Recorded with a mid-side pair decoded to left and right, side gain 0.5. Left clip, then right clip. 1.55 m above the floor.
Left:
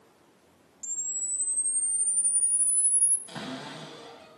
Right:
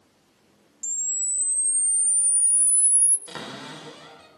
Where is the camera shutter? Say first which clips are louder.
Right 6 dB; 40° right, 0.7 m.